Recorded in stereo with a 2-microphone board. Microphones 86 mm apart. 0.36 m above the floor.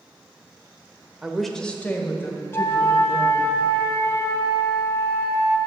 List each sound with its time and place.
1.2 s a woman speaking: 10° right (ahead or behind), 0.9 m; by 3.5 s 35° left (ahead or behind), 3 m
2.5 s a flute: 45° left (ahead or behind), 3 m